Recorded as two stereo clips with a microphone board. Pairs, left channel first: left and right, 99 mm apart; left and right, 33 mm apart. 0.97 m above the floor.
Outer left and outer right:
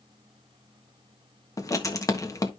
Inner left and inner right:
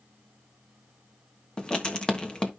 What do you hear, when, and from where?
1.6 s writing: 35° left (ahead or behind), 1.2 m